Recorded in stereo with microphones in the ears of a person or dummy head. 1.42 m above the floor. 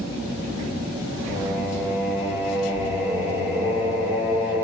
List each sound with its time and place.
1.3 s singing: 10° right (ahead or behind), 5 m